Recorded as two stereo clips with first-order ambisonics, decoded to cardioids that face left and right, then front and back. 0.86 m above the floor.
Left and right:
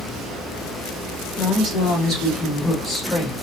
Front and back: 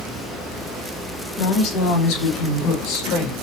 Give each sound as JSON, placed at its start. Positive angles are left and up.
{"t": 1.4, "sound": "a woman speaking", "azimuth_deg": -5, "distance_m": 2.0}